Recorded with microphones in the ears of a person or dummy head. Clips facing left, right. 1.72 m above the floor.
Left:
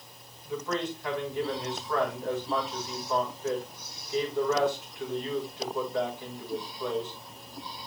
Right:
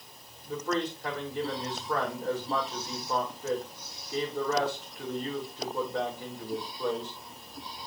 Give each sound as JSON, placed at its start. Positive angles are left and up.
{"t": 0.5, "sound": "a man speaking", "side_deg": -35, "distance_m": 3.0}